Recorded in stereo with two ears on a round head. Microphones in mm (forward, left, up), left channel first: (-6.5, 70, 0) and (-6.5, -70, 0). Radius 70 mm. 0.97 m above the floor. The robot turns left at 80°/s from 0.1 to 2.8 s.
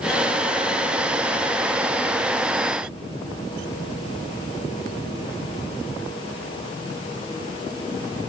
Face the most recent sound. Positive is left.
No sound to turn to.